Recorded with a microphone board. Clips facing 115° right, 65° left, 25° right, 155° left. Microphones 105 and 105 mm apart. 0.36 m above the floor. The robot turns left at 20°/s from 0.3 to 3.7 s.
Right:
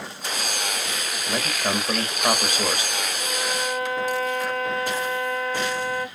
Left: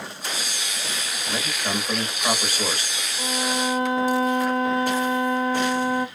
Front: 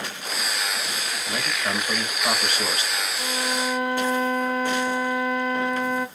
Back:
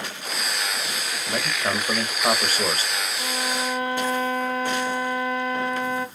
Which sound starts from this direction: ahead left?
A violin, at 3.2 s.